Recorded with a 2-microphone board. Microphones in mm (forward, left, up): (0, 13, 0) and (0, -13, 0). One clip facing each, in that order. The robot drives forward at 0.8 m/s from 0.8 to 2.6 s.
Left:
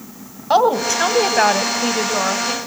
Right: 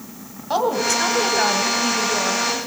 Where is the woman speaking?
30° left (ahead or behind), 1.2 m; by 2.6 s 25° left (ahead or behind), 1.6 m.